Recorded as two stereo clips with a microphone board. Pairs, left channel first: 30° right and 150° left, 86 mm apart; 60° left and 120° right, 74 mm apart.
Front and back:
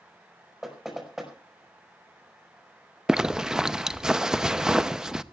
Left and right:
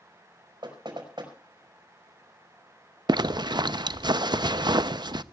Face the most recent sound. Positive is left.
turn(degrees=-130)